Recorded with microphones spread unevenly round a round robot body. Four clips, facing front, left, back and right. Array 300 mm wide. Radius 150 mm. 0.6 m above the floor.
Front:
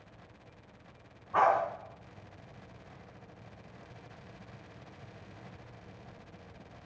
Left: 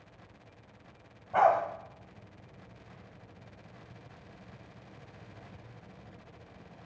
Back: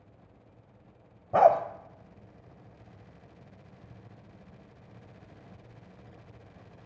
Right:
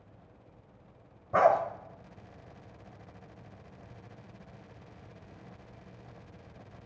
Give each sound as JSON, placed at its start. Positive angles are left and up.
{"t": 1.3, "sound": "a dog barking", "azimuth_deg": -155, "distance_m": 0.9}